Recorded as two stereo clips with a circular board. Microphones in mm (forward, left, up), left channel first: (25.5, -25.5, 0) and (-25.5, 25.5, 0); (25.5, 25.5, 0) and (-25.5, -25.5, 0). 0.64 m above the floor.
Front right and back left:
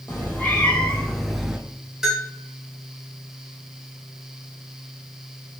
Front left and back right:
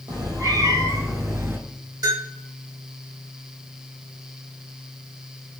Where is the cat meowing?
105° right, 1.5 m; by 1.6 s 155° right, 0.7 m.